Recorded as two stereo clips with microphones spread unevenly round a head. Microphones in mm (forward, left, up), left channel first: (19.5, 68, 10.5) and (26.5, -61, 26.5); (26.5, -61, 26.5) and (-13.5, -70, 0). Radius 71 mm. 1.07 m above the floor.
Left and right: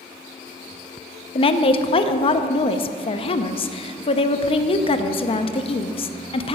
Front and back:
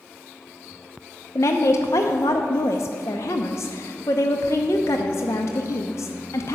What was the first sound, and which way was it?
A woman speaking, 70° left.